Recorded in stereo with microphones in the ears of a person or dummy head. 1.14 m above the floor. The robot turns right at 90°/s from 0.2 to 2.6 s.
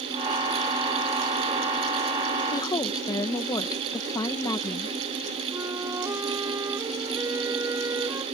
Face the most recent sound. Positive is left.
turn(degrees=-15)  # may be behind; listen again after turning